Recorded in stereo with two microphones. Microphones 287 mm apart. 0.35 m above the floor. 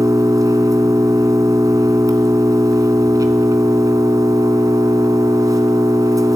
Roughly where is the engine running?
Centre.